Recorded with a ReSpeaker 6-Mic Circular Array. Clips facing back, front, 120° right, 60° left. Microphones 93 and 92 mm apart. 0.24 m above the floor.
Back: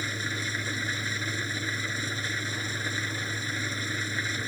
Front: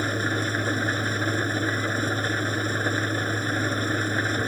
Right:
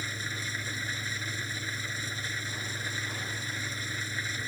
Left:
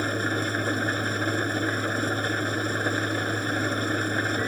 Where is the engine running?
35° left.